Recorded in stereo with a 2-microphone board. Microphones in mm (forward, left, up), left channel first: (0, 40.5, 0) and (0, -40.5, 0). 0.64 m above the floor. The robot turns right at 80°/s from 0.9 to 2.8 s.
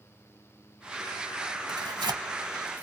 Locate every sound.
1.7 s tearing paper: 65° right (ahead or behind), 1.1 m; by 2.8 s 25° right (ahead or behind), 1.1 m